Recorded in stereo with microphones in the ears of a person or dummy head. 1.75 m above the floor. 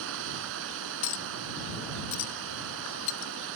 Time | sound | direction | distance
0.0 | running water | 75° right (ahead or behind) | ?
1.0 | a clink | 35° left (ahead or behind) | ?